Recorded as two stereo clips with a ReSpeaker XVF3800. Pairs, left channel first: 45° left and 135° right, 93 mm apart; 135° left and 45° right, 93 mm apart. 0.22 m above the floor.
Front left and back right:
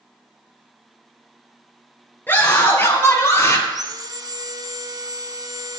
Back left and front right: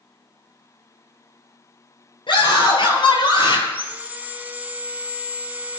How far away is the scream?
About 3.5 m.